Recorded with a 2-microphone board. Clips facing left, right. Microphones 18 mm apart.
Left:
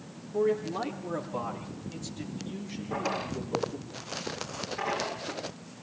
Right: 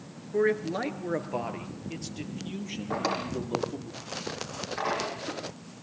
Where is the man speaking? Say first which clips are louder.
Right 2 dB; 75° right (ahead or behind), 4 m; by 3.9 s 55° right (ahead or behind), 8 m.